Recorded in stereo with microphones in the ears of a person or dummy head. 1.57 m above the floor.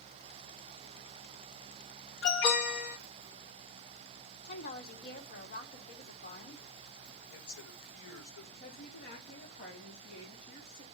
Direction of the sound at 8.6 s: 65° left (ahead or behind).